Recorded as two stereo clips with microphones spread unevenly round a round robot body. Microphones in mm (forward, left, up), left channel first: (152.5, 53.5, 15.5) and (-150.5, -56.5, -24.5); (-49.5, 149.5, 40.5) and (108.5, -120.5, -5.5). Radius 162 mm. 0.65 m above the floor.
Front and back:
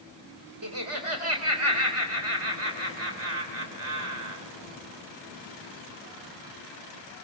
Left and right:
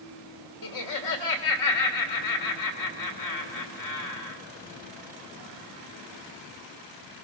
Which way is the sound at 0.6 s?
155° left.